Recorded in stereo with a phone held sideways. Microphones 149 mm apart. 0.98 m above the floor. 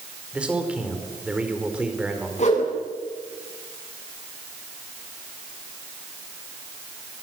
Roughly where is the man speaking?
Centre.